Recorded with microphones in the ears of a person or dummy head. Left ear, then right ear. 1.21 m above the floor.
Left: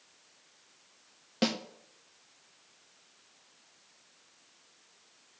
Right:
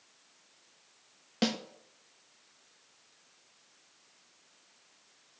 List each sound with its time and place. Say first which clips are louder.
1.4 s a snare drum: left 1 dB; 5° right (ahead or behind), 1.5 m